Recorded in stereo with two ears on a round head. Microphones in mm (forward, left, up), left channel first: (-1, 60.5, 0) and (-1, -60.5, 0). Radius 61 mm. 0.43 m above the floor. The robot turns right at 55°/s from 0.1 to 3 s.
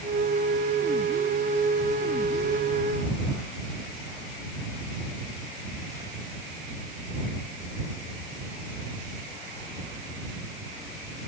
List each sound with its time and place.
Only background noise.